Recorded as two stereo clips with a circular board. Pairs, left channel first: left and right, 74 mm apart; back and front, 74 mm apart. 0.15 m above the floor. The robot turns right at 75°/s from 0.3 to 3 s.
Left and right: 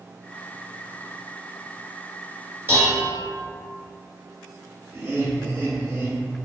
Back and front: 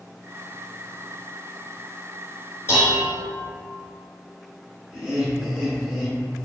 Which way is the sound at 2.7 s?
140° right.